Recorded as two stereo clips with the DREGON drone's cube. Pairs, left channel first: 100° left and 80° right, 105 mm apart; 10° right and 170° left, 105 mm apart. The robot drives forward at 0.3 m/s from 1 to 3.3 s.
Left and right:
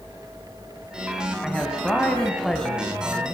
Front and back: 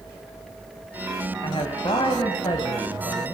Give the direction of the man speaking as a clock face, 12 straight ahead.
11 o'clock.